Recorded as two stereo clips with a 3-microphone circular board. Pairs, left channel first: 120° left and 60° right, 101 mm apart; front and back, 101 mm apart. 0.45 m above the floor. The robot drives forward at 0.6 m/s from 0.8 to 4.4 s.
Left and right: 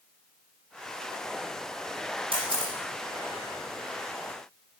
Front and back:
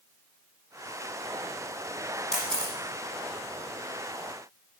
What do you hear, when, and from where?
2.3 s a camera shutter: 80° right, 3 m; by 2.7 s 85° right, 3 m